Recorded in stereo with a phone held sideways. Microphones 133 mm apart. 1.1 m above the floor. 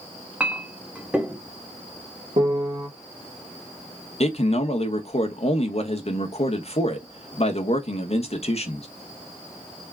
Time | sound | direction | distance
0.4 | a clink | 10° right (ahead or behind) | 1.2 m
2.4 | a piano | 55° right (ahead or behind) | 1.3 m
4.2 | a man speaking | 50° left (ahead or behind) | 1.0 m